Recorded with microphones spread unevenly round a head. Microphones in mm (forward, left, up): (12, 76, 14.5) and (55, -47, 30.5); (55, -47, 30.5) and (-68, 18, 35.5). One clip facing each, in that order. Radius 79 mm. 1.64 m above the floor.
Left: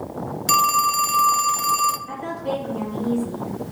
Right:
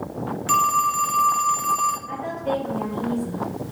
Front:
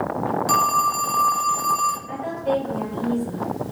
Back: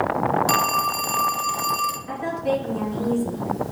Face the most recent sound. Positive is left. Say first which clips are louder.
# right 1 dB, back 1 dB
turn(degrees=175)